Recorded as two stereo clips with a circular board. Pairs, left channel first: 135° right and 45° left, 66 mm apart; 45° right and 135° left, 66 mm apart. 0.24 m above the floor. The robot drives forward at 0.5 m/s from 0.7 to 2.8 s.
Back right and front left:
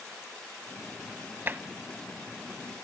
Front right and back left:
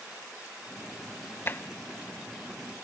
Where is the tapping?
Straight ahead, 0.6 m.